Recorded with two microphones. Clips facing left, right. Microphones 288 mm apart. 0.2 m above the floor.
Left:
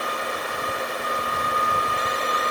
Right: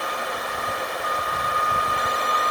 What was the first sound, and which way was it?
Only background noise.